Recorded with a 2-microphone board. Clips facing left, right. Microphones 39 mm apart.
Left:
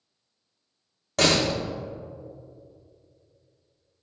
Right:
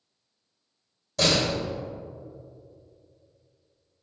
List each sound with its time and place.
1.2 s a door slam: 60° left (ahead or behind), 1.2 m